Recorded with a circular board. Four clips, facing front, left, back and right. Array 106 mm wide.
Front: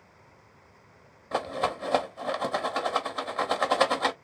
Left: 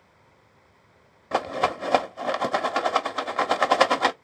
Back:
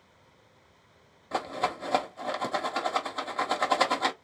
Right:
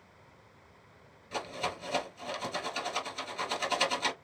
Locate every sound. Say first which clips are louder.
1.3 s a rattle: left 12 dB, front 2 dB; 85° left, 0.7 m